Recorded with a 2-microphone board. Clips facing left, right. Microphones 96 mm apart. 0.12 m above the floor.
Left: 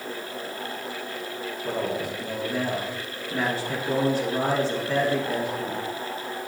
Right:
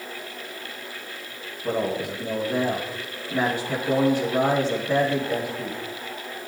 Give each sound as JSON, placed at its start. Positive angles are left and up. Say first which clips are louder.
{"t": 1.6, "sound": "a man speaking", "louder": "right 3 dB", "side_deg": -15, "distance_m": 5.0}